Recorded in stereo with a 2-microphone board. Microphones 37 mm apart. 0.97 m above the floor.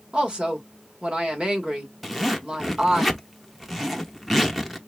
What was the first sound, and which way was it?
A woman speaking, 30° right (ahead or behind).